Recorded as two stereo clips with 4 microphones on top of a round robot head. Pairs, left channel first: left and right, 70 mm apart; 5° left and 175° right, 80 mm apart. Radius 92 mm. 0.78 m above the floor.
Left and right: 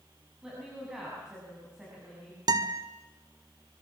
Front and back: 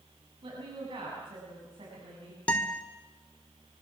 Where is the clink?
No clink in this recording.